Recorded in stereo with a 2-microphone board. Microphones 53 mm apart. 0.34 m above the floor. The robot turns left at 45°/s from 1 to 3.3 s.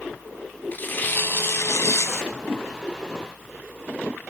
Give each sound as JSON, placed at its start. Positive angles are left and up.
{"t": 0.7, "sound": "tearing paper", "azimuth_deg": 140, "distance_m": 3.0}
{"t": 2.3, "sound": "a whoosh", "side_deg": 0, "distance_m": 5.5}